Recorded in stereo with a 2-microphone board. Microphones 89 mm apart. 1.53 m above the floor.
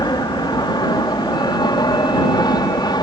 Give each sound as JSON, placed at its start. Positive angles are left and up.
{"t": 0.0, "sound": "an aircraft", "side_deg": 55}